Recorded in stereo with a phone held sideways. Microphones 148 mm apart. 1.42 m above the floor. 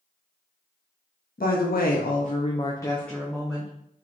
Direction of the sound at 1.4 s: 75° left (ahead or behind).